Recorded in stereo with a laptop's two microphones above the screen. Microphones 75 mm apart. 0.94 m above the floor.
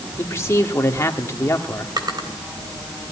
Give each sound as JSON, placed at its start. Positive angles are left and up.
{"t": 0.2, "sound": "a man speaking", "side_deg": 35, "distance_m": 1.8}
{"t": 2.0, "sound": "a drawer", "side_deg": -65, "distance_m": 3.0}